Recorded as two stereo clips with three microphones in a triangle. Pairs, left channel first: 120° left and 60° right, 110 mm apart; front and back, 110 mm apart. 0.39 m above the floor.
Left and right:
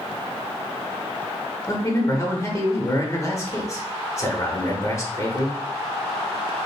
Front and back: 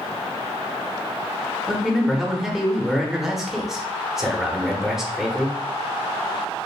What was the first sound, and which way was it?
A man speaking, 95° left.